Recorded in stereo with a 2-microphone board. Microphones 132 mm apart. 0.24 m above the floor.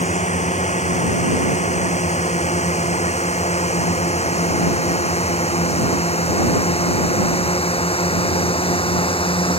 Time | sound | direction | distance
0.0 | a drone | 65° left (ahead or behind) | ?